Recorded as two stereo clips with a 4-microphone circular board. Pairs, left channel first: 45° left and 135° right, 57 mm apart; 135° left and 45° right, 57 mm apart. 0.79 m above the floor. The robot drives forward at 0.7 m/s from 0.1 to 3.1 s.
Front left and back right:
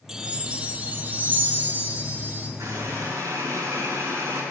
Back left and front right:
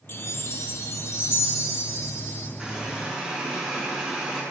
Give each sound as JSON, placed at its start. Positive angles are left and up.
{"t": 0.1, "sound": "a chime", "azimuth_deg": 145, "distance_m": 0.6}
{"t": 2.6, "sound": "a running tap", "azimuth_deg": -115, "distance_m": 5.0}